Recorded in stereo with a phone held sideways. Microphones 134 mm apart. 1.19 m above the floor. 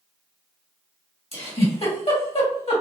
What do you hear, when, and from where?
1.3 s a giggle: 50° left (ahead or behind), 1.9 m